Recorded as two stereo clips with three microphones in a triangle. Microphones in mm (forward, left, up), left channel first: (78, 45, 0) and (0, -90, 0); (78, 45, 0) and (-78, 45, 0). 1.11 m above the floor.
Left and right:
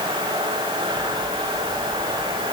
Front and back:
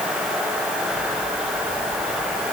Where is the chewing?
I don't hear chewing.